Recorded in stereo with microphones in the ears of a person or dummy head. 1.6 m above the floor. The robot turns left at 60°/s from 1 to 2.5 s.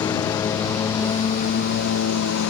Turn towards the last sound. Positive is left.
turn(degrees=75)  # may be behind; listen again after turning